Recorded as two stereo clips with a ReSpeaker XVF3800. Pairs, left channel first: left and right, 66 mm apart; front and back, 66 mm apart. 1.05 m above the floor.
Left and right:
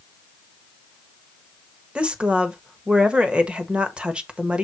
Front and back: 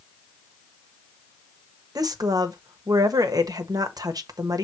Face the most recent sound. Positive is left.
turn(degrees=-165)